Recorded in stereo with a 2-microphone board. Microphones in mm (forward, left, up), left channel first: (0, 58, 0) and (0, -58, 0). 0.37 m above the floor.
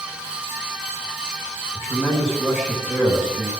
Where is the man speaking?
5° right (ahead or behind), 4.5 m.